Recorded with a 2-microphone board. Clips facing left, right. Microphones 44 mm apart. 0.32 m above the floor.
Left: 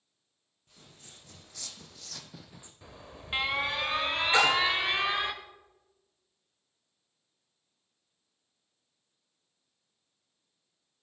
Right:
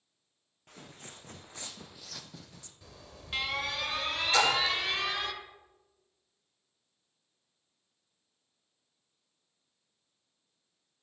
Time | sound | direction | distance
0.7 | footsteps | 55° right (ahead or behind) | 1.3 m
2.8 | an alarm | 25° left (ahead or behind) | 0.8 m
4.3 | a splash | 20° left (ahead or behind) | 1.8 m